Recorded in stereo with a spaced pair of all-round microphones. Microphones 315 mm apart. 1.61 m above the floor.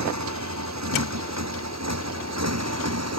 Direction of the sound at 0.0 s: 60° right (ahead or behind).